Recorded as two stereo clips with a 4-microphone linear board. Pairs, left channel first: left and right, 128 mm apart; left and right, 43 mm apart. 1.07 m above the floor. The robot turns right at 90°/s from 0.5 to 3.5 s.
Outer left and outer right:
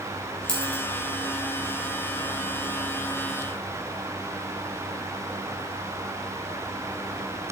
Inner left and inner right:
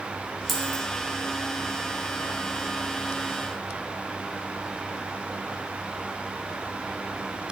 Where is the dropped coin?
5° left (ahead or behind), 2.5 m; by 0.8 s 35° left (ahead or behind), 2.5 m.